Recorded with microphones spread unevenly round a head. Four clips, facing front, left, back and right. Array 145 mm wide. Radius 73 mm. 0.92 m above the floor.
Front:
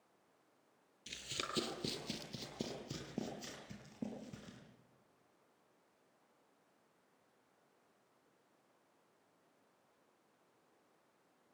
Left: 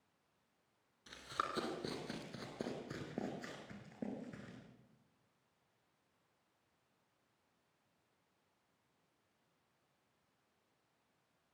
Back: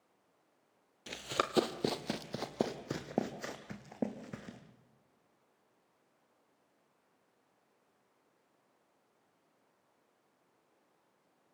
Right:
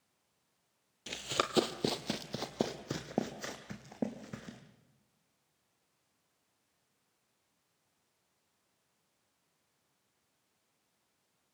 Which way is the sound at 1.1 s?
125° right.